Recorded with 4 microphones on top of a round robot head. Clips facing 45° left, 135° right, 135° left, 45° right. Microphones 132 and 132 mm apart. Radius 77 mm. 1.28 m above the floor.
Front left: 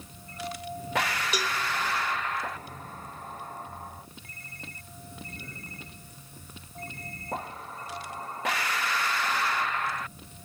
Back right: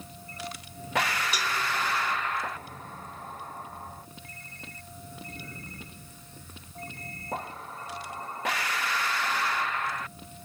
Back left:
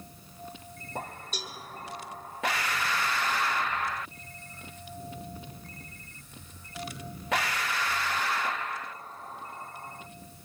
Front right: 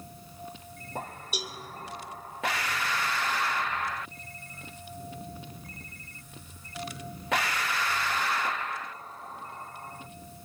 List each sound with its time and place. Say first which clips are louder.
1.3 s a cowbell: front left 1 dB, front right 4 dB; 35° left, 1.2 m